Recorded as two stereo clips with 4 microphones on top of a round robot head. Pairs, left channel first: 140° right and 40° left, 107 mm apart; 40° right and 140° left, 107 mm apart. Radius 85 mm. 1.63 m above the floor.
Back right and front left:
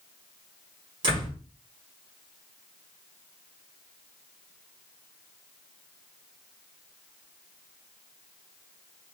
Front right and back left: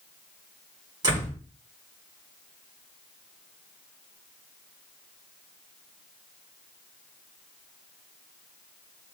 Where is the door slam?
85° left, 5 m.